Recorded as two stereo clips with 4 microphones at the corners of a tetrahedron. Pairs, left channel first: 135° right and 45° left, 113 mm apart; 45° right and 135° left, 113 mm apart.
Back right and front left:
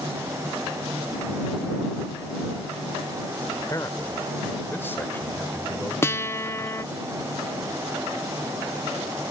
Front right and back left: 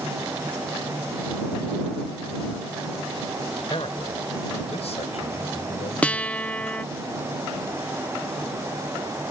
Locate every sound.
3.6 s a man speaking: 75° right; by 7.0 s 50° right
6.0 s a guitar: 110° right